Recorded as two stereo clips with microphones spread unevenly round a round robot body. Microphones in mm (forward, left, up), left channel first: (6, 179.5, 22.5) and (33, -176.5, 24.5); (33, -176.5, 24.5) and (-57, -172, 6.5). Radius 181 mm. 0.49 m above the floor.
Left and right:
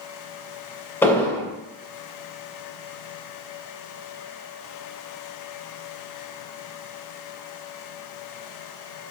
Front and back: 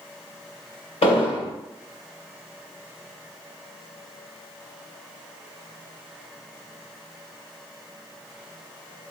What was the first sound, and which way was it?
An explosion, 10° left.